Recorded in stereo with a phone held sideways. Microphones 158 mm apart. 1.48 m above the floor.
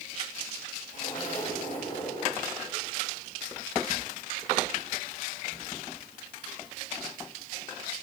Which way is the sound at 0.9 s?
55° left (ahead or behind).